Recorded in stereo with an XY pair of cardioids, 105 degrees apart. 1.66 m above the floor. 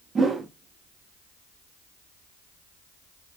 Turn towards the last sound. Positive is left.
turn(degrees=-35)